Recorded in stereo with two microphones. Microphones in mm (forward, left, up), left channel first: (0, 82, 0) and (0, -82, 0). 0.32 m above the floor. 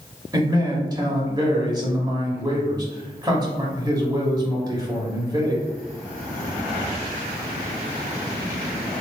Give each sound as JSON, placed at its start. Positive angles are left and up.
{"t": 0.3, "sound": "a man speaking", "side_deg": -25, "distance_m": 1.2}